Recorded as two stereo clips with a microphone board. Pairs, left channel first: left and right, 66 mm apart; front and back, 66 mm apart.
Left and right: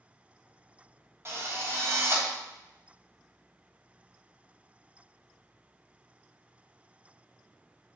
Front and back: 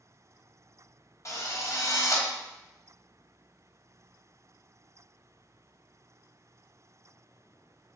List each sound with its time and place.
1.2 s a drill: 40° right, 1.4 m